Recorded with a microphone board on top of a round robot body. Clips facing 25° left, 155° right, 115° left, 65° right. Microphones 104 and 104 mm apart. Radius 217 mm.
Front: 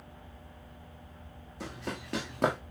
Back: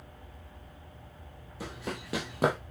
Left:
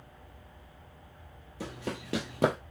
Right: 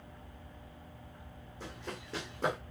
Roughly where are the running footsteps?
Behind left.